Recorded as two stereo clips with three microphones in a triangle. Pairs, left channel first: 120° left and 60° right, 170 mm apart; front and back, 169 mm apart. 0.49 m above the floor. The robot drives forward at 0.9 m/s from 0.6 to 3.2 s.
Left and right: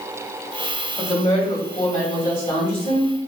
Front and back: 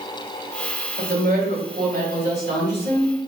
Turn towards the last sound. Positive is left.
turn(degrees=175)